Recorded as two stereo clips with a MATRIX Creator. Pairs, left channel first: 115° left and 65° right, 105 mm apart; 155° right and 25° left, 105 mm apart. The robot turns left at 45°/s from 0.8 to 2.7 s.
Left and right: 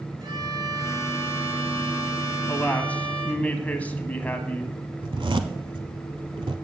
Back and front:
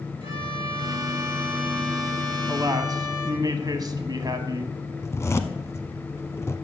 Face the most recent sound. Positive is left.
turn(degrees=-95)